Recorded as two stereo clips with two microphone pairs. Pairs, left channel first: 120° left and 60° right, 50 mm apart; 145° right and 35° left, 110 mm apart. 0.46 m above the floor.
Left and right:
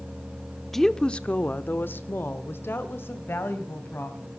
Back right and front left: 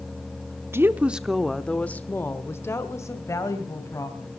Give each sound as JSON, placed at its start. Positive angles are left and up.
{"t": 0.7, "sound": "a woman speaking", "azimuth_deg": 40, "distance_m": 0.9}